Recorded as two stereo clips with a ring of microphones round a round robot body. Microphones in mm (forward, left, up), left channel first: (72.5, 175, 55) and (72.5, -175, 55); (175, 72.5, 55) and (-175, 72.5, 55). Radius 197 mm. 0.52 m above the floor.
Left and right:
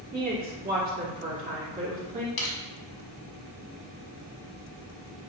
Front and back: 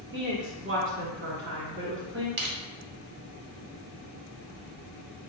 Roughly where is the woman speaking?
Behind right.